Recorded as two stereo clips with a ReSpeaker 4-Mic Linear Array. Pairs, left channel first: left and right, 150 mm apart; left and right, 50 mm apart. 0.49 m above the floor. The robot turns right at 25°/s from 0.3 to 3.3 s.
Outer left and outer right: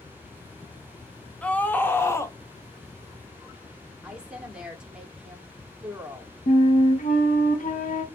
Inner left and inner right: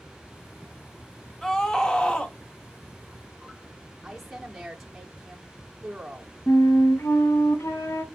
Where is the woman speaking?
5° right (ahead or behind), 0.8 m.